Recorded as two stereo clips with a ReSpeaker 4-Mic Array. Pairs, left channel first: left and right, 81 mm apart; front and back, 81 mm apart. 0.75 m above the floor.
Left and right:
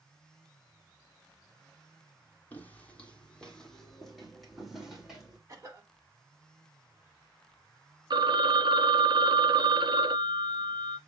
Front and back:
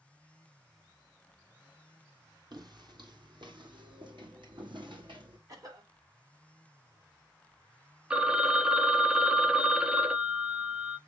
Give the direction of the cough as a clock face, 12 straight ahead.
5 o'clock.